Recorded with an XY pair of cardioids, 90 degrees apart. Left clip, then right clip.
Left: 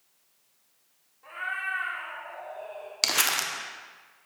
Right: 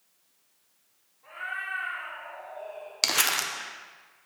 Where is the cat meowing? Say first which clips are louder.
Left 2 dB; 50° left, 2 m.